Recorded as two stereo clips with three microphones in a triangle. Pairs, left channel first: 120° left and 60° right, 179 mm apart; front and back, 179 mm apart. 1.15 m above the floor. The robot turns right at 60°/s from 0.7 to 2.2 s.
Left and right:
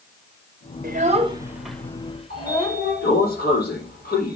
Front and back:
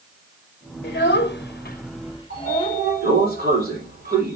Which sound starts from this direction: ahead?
A child speaking, at 0.8 s.